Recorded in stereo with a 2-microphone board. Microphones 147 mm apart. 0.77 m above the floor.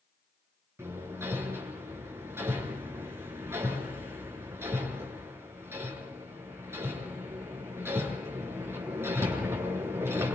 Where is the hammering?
15° right (ahead or behind), 9 m.